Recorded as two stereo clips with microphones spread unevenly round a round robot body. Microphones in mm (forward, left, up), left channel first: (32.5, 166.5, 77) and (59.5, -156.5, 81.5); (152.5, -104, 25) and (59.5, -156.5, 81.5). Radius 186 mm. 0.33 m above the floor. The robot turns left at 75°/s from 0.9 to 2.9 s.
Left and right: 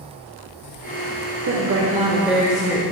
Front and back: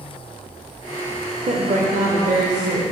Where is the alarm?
No alarm in this recording.